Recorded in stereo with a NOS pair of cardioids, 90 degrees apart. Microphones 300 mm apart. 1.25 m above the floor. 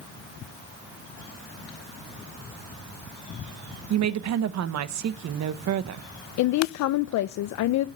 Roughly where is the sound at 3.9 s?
Ahead right.